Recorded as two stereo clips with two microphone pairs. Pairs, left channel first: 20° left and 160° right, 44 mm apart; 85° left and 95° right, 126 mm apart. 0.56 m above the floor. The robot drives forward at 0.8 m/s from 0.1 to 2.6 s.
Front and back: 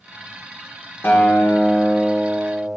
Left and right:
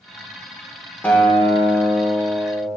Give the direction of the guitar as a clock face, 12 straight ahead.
12 o'clock.